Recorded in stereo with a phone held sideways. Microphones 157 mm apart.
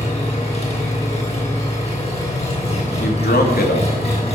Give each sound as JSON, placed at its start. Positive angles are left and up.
{"t": 0.0, "sound": "an engine running", "side_deg": 40, "distance_m": 6.0}
{"t": 3.0, "sound": "a man speaking", "side_deg": 80, "distance_m": 3.0}